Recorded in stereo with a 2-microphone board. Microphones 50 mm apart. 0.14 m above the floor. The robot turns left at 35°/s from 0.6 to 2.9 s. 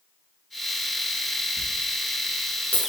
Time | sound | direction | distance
1.6 | a dropped coin | 35° left (ahead or behind) | 0.8 m